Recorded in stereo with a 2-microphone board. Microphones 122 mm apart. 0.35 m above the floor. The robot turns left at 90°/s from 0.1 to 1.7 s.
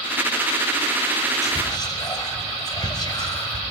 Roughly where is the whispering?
Left.